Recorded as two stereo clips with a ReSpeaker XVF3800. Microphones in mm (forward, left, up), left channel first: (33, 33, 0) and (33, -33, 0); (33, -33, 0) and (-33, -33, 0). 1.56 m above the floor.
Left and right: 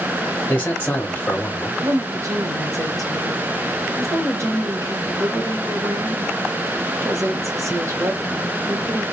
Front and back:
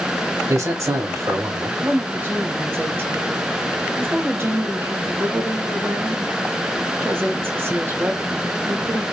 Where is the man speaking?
150° left, 0.7 m.